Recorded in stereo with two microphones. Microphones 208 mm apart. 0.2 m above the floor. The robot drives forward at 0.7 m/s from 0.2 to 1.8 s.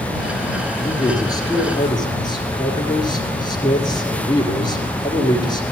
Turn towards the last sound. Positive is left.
turn(degrees=20)  # may be behind; listen again after turning